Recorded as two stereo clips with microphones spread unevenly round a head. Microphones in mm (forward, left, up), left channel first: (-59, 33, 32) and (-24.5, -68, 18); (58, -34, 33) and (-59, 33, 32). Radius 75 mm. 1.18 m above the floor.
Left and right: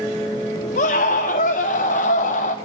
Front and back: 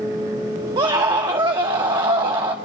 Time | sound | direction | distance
0.8 | a scream | 90° left | 0.9 m